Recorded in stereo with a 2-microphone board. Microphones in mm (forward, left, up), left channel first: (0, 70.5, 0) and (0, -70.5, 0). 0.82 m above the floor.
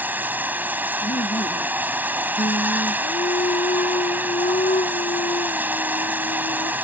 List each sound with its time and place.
0.0 s running water: 10° right (ahead or behind)
1.0 s laughter: 60° left (ahead or behind)
2.4 s singing: 70° left (ahead or behind)